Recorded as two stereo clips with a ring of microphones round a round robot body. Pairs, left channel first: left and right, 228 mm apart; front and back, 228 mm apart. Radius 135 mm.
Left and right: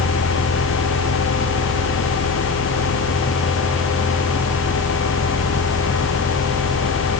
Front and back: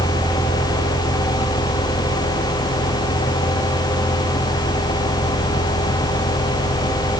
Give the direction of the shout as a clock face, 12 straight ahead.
No shout in this recording.